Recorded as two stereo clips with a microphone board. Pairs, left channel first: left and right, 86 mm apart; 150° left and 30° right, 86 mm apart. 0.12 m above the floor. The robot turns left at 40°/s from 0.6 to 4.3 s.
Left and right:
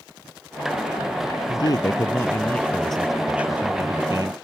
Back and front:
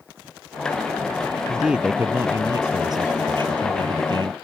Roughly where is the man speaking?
Ahead left.